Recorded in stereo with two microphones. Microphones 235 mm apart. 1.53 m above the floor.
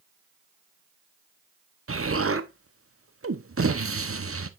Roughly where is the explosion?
Right.